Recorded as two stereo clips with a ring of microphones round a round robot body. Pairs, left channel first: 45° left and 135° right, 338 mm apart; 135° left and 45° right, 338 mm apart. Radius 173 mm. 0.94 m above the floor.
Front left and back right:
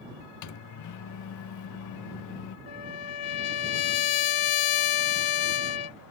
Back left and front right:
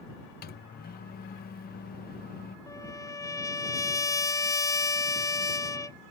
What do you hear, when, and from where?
0.4 s a microwave: 75° left
2.7 s a trumpet: 55° left